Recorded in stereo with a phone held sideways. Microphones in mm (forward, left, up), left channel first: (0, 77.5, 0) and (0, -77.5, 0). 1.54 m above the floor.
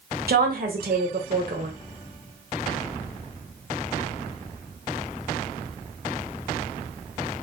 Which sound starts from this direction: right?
A woman speaking, at 0.3 s.